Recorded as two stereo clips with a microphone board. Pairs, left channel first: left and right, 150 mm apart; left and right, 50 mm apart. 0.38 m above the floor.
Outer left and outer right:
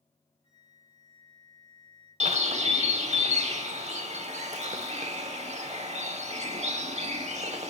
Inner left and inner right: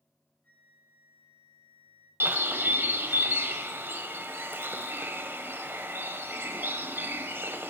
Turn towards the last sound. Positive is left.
turn(degrees=-50)  # may be behind; listen again after turning